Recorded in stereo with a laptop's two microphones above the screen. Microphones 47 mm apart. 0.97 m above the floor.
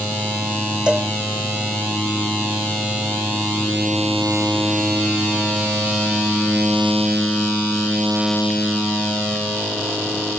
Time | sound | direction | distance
0.9 | a cowbell | 20° right (ahead or behind) | ?